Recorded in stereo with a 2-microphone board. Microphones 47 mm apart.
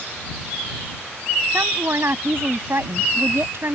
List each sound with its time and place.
1.5 s a woman speaking: 60° right (ahead or behind)